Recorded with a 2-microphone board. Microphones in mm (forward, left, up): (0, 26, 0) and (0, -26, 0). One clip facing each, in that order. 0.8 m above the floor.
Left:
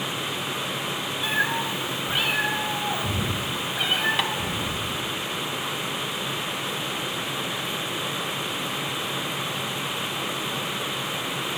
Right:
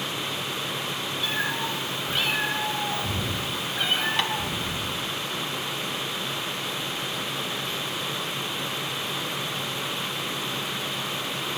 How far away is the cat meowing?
About 1.4 m.